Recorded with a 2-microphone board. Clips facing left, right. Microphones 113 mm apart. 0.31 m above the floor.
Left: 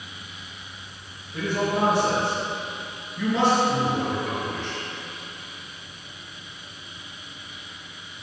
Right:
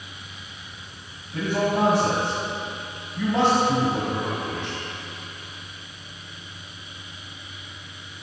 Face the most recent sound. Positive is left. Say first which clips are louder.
# right 2 dB
turn(degrees=-55)  # may be behind; listen again after turning